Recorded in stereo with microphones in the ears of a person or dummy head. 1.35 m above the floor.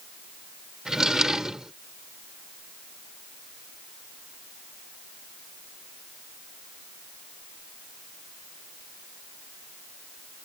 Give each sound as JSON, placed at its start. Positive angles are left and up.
{"t": 0.8, "sound": "a drawer", "side_deg": -5}